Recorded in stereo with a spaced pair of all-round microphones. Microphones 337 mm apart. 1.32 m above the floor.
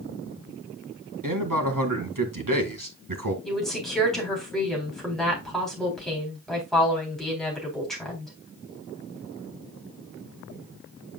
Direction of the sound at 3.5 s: Centre (ahead or behind).